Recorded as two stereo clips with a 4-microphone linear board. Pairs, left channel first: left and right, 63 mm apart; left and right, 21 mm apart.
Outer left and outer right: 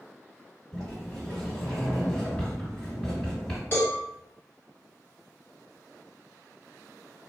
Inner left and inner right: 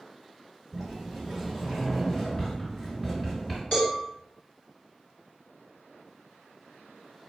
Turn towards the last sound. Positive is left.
turn(degrees=40)  # may be behind; listen again after turning